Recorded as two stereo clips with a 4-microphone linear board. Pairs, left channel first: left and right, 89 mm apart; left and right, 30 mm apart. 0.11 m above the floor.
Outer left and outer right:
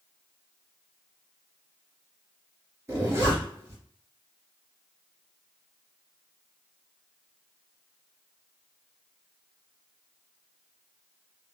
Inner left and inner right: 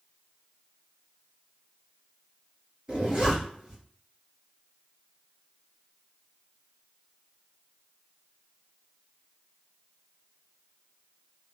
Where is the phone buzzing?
No phone buzzing in this recording.